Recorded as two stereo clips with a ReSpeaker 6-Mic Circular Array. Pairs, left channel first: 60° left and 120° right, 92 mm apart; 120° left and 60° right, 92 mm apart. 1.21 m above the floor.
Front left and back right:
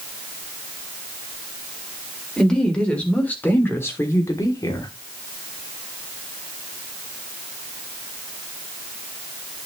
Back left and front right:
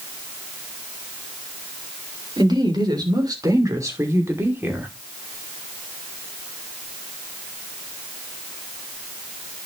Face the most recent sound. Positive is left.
turn(degrees=15)